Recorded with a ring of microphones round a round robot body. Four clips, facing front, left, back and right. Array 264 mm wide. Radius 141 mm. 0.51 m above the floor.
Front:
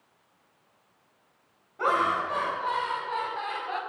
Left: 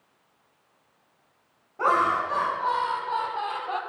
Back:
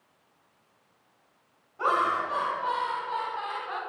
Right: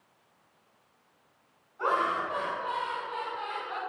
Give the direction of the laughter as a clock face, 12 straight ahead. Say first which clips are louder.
Left 5 dB, even; 9 o'clock.